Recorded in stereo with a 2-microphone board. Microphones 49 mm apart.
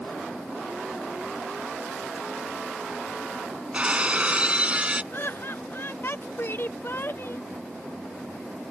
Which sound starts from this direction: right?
Breaking glass, at 3.7 s.